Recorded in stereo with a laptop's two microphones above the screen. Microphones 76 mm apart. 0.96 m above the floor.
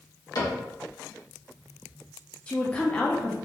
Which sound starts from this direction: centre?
A woman speaking, at 2.5 s.